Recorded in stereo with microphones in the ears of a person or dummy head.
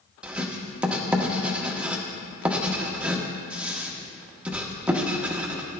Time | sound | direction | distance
0.2 | writing | 10° right (ahead or behind) | 1.0 m